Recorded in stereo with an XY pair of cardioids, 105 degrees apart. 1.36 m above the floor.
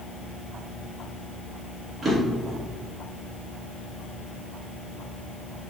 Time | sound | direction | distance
2.0 | a drawer | 35° right | 1.5 m